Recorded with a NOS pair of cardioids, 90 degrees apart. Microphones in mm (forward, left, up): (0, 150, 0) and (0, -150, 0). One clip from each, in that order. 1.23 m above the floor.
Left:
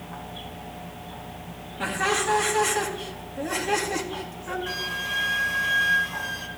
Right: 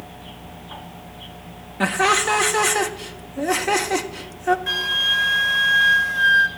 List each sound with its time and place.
1.8 s laughter: 60° right, 2 m
4.7 s a flute: 20° right, 3 m